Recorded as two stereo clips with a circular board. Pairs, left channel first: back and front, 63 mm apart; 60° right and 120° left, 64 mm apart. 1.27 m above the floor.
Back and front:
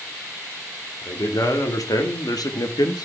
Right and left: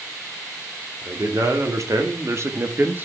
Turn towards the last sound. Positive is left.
turn(degrees=180)